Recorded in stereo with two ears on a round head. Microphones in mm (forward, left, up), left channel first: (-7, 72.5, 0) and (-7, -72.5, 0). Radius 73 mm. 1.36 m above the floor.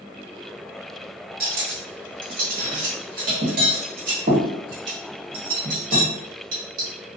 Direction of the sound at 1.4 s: 55° right (ahead or behind).